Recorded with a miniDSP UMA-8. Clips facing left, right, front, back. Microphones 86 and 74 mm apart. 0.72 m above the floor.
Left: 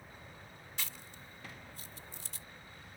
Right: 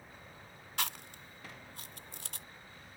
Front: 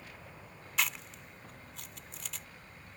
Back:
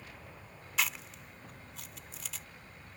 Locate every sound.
0.8 s chewing: 90° right